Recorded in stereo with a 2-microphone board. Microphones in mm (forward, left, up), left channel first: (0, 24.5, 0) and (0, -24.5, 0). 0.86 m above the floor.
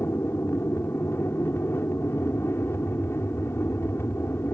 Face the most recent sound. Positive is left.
turn(degrees=60)  # may be behind; listen again after turning